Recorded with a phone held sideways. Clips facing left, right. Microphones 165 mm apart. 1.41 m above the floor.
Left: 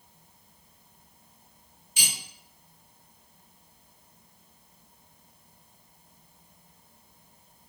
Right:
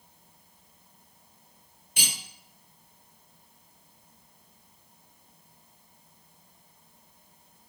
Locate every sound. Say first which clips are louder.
2.0 s cutlery clinking: right 2 dB; 60° right (ahead or behind), 1.5 m